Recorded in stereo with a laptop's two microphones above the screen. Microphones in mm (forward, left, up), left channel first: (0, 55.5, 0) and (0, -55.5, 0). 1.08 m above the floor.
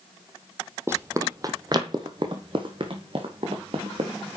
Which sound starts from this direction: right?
Running footsteps, at 0.9 s.